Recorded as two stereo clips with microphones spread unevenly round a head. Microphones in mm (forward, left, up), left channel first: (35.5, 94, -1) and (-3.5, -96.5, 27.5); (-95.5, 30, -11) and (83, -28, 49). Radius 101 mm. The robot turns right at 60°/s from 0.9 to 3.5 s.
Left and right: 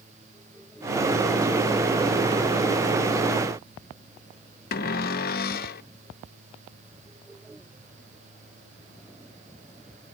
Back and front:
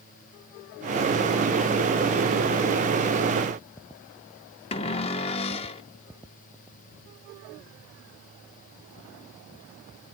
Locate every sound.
4.7 s a cupboard door: 95° left, 0.7 m